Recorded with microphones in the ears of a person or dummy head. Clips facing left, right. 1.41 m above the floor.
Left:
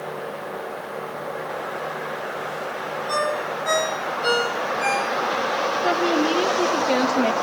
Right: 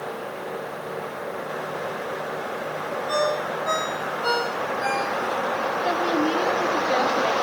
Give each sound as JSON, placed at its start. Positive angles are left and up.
{"t": 3.1, "sound": "a ringtone", "side_deg": 30, "distance_m": 6.0}
{"t": 5.8, "sound": "a woman speaking", "side_deg": 65, "distance_m": 2.5}